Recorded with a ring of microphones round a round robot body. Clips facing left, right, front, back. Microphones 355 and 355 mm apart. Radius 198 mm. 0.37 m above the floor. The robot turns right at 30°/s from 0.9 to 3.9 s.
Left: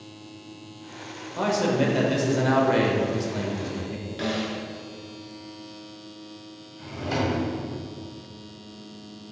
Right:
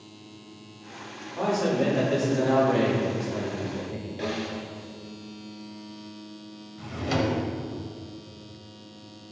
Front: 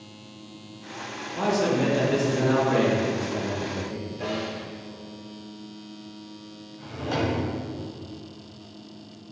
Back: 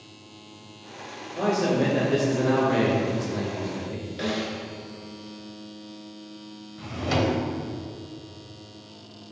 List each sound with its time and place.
1.4 s a man speaking: 60° left, 2.0 m; by 4.1 s 135° left, 2.0 m
4.2 s a snare drum: 155° left, 1.5 m
6.8 s a drawer: 140° right, 1.3 m